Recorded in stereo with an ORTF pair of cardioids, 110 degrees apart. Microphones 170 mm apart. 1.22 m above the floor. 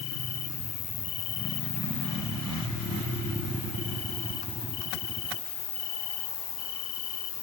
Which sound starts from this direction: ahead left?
An insect, at 0.0 s.